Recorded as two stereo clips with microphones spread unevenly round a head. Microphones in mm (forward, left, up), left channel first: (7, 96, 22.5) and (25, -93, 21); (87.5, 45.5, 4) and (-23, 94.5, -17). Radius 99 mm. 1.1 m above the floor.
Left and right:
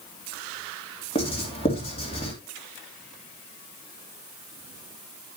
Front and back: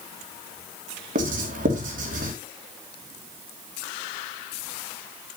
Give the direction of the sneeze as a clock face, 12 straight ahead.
No sneeze in this recording.